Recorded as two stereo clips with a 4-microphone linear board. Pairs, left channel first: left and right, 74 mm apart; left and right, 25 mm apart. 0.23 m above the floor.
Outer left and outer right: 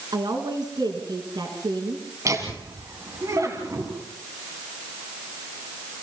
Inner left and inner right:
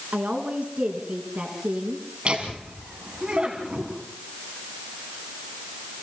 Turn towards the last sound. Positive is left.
turn(degrees=-45)  # may be behind; listen again after turning